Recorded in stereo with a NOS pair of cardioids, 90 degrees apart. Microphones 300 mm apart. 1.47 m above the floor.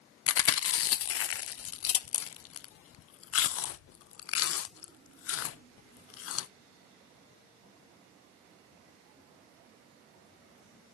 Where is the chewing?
50° left, 0.6 m.